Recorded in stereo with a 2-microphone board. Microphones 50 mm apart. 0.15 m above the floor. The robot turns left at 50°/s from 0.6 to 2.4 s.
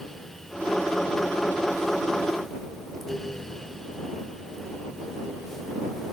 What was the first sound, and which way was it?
Only background noise.